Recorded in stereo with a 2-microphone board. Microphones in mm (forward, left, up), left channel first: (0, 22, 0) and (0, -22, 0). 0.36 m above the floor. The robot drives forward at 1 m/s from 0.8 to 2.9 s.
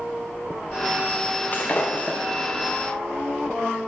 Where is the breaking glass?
40° left (ahead or behind), 1.9 m; by 2.2 s 30° left (ahead or behind), 2.5 m.